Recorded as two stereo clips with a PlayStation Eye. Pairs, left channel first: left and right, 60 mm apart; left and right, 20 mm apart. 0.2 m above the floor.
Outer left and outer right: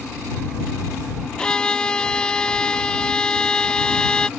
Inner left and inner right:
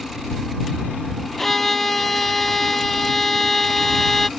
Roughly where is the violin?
Centre.